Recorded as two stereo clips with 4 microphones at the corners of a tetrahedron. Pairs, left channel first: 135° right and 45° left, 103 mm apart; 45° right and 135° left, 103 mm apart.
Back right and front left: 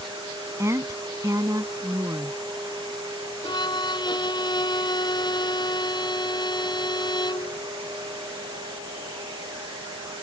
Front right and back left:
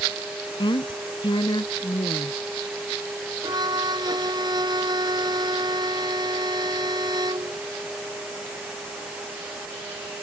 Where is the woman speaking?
15° right; by 2.4 s 10° right.